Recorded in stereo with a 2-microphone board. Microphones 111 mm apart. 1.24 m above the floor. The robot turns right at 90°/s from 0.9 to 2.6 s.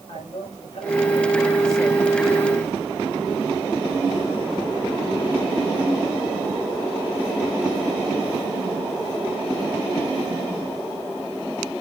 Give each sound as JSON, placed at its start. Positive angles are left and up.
{"t": 0.1, "sound": "a man speaking", "azimuth_deg": 105, "distance_m": 8.0}